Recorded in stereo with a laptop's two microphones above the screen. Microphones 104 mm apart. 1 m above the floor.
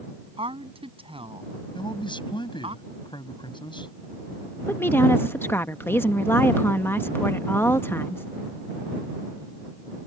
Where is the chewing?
I don't hear chewing.